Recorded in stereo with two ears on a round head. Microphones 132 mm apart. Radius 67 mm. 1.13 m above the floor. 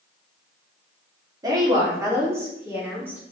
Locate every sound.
1.4 s a woman speaking: 25° right (ahead or behind), 3 m; by 3.2 s 15° right (ahead or behind), 4 m